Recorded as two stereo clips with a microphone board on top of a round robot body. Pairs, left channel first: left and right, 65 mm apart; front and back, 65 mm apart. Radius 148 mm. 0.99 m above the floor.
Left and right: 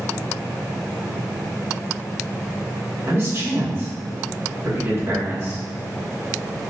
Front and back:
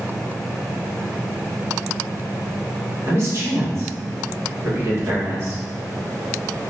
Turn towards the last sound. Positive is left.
turn(degrees=-135)